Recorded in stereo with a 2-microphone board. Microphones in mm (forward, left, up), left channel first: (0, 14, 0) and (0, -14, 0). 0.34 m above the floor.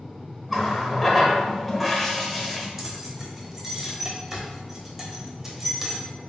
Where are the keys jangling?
15° right (ahead or behind), 0.8 m.